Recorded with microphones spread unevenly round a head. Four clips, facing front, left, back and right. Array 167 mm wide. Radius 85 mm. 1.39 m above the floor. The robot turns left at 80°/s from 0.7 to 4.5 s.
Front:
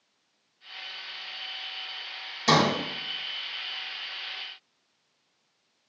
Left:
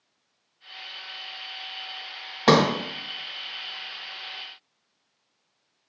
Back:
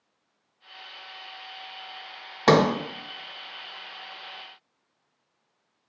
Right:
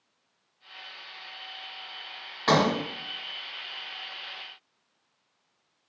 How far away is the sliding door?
About 0.6 m.